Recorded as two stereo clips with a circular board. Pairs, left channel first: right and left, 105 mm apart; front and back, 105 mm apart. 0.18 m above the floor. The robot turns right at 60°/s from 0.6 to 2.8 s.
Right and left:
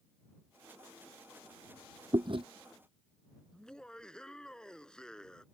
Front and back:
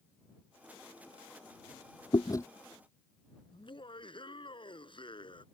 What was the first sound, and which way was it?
Chewing, 45° left.